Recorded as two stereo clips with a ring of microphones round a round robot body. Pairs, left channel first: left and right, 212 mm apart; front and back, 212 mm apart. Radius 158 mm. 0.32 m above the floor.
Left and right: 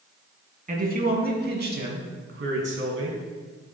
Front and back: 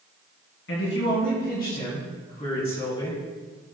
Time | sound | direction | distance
0.7 | a man speaking | 40° right | 3 m